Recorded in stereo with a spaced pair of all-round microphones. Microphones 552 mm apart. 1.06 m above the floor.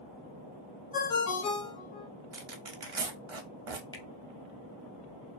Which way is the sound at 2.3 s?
70° right (ahead or behind).